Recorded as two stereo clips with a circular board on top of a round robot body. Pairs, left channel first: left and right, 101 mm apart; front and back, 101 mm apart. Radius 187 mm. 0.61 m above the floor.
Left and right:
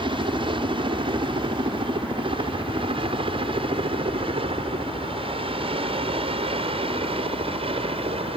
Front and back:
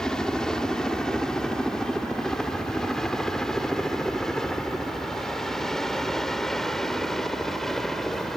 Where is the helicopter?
85° right.